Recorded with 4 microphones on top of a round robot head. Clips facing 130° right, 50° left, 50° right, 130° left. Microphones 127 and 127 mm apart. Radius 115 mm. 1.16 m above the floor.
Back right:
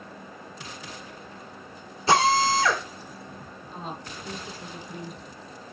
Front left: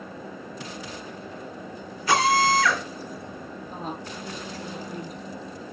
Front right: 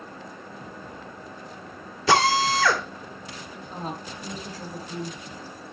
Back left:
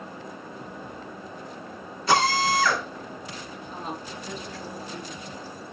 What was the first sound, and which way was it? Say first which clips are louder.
A drill: even, front right 2 dB; 65° right.